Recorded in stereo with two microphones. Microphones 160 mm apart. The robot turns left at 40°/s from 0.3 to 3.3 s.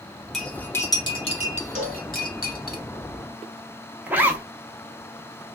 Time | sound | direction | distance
0.3 | cutlery clinking | centre (ahead or behind) | 1.1 m
1.8 | a cowbell | 50° right (ahead or behind) | 0.8 m
4.1 | a zipper | 10° right (ahead or behind) | 0.6 m